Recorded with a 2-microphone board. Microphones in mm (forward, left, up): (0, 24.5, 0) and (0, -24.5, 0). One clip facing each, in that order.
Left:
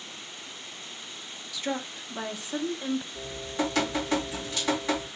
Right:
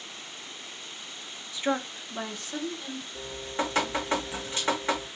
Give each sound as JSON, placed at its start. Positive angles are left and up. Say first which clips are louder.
{"t": 1.5, "sound": "a woman speaking", "louder": "right 4 dB", "side_deg": -30, "distance_m": 1.0}
{"t": 3.1, "sound": "dripping", "louder": "left 1 dB", "side_deg": -30, "distance_m": 1.9}